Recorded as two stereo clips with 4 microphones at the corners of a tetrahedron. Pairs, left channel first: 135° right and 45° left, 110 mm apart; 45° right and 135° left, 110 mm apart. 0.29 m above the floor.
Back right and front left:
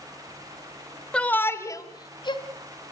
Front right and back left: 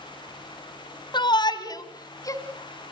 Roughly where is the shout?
Ahead right.